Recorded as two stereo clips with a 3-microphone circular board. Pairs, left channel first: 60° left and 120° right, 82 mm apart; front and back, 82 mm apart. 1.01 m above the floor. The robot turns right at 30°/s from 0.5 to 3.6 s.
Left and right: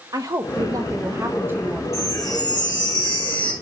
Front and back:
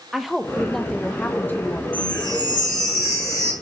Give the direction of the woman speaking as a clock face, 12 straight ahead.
3 o'clock.